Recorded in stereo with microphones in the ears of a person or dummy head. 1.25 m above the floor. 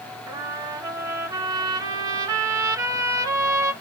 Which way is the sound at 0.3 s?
20° right (ahead or behind).